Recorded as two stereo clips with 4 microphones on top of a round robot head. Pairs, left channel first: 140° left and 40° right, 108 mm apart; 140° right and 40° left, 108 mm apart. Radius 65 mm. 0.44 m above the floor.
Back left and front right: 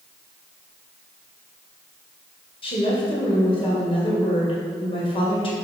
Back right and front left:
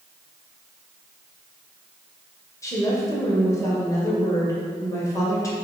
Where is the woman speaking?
165° left, 1.9 m.